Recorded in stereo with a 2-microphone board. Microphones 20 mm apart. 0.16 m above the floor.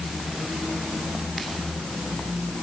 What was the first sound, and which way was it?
Only background noise.